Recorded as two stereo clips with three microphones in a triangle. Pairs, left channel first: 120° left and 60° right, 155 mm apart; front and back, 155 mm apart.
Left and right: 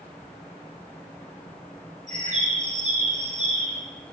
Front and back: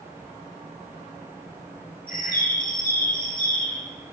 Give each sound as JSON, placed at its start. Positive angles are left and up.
{"t": 2.1, "sound": "a bird", "azimuth_deg": -20, "distance_m": 3.5}